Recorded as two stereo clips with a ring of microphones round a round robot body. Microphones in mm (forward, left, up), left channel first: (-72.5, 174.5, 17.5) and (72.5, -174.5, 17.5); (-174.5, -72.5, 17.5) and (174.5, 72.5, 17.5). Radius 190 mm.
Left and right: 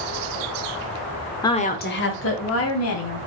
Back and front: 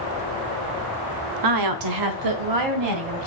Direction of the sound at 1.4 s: 35° left.